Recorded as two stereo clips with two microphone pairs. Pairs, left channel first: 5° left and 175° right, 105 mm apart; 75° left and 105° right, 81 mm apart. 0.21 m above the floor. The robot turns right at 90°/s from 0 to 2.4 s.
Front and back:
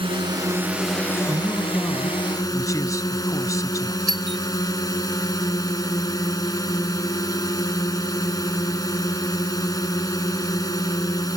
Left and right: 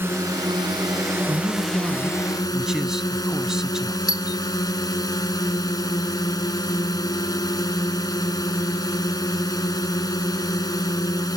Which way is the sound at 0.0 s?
165° right.